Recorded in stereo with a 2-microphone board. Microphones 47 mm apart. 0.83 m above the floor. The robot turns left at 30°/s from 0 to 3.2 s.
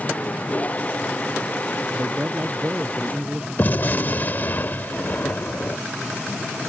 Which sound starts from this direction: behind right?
A man speaking, at 1.9 s.